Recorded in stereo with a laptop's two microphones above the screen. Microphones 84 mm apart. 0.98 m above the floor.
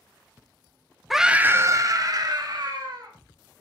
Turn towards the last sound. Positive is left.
turn(degrees=-55)  # may be behind; listen again after turning